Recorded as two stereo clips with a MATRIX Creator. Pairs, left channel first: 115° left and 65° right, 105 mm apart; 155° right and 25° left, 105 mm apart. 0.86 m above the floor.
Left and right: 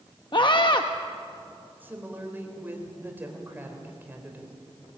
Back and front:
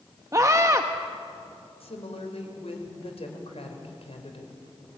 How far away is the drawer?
No drawer in this recording.